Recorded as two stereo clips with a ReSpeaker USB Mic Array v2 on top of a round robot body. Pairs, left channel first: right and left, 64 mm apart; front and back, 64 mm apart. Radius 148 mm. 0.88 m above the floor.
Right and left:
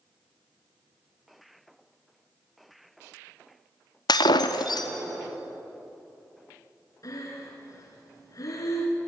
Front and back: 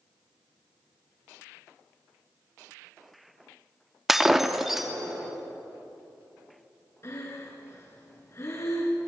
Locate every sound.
4.1 s breaking glass: 95° right, 0.6 m
7.0 s breathing: 50° right, 3.5 m